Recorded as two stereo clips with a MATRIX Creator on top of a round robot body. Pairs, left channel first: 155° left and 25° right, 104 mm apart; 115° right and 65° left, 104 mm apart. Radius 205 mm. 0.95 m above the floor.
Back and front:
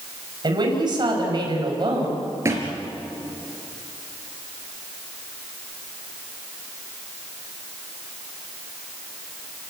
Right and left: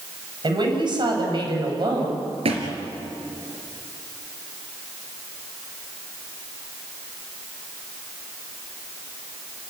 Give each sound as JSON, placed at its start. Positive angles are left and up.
{"t": 0.4, "sound": "a woman speaking", "azimuth_deg": 25, "distance_m": 6.0}
{"t": 2.5, "sound": "a thud", "azimuth_deg": 40, "distance_m": 3.5}